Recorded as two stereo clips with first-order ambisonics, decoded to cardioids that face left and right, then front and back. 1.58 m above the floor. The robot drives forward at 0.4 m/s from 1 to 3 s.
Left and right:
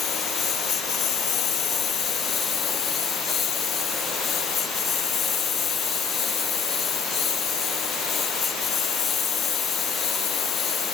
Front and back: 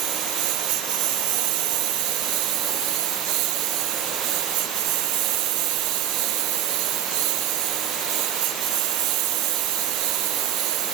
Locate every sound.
0.0 s a lawn mower: 150° left; by 10.9 s 155° left